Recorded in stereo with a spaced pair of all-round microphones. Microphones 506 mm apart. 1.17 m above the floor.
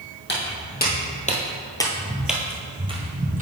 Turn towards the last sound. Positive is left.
turn(degrees=-15)  # may be behind; listen again after turning